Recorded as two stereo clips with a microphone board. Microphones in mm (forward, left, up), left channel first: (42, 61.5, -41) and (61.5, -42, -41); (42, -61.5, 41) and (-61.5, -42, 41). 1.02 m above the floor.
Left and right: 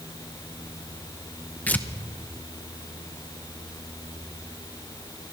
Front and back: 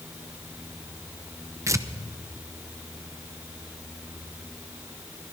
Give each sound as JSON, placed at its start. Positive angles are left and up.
{"t": 1.7, "sound": "tearing paper", "azimuth_deg": 155, "distance_m": 0.8}